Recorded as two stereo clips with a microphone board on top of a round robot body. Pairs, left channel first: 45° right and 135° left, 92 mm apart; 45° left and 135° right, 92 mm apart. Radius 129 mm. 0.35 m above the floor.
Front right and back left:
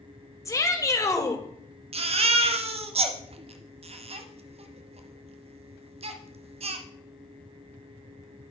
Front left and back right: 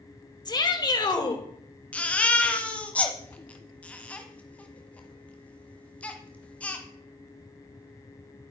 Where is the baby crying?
120° left, 1.2 m.